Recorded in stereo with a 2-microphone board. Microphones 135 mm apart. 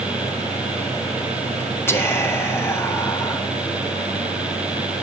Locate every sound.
1.9 s whispering: 15° left (ahead or behind), 1.6 m